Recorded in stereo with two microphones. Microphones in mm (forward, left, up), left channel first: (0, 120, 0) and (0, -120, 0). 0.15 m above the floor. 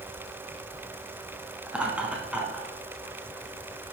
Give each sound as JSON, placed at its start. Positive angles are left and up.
{"t": 1.7, "sound": "laughter", "side_deg": -5, "distance_m": 1.1}